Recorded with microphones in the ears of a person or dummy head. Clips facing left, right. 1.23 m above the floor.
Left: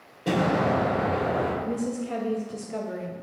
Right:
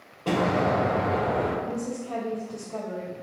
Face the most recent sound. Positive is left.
turn(degrees=15)  # may be behind; listen again after turning